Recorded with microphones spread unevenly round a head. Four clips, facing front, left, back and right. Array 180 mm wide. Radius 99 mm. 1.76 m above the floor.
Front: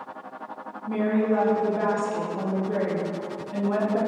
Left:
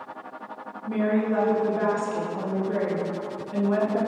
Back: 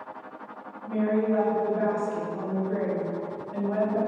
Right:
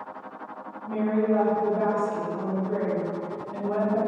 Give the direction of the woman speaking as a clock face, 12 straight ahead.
11 o'clock.